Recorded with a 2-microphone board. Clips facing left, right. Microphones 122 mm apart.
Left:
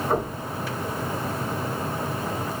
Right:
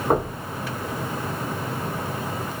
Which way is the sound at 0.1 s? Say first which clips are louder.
Right 4 dB; 50° right (ahead or behind).